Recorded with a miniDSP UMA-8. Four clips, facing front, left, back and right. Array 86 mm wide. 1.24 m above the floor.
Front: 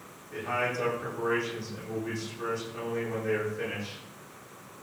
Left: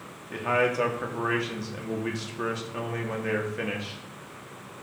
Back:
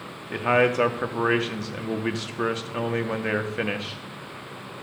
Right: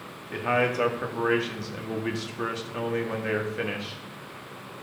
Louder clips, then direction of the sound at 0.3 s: Even, back 10 dB; straight behind.